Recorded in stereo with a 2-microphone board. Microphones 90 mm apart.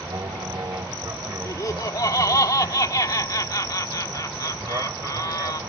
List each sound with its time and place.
0.0 s an aircraft: 40° right (ahead or behind); by 5.7 s 30° right (ahead or behind)
1.4 s laughter: 40° left (ahead or behind)